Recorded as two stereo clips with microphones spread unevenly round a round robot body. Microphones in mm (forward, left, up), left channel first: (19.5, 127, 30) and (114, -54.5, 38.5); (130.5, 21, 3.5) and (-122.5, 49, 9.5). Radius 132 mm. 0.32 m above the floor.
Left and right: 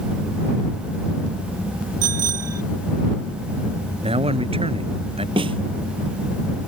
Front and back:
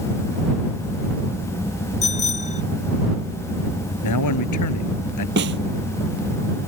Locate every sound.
2.0 s a bicycle bell: 75° right
4.0 s a man speaking: straight ahead
5.4 s a snare drum: 135° right